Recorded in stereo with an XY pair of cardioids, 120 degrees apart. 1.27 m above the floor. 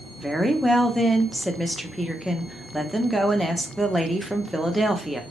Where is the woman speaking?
Straight ahead, 0.7 m.